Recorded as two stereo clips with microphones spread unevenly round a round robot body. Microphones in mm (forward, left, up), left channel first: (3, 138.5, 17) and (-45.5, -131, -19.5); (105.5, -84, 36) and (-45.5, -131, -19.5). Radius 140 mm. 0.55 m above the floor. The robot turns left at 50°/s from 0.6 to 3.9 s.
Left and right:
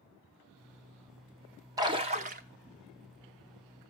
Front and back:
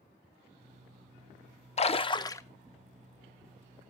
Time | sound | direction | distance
1.8 | a splash | 35° right | 0.7 m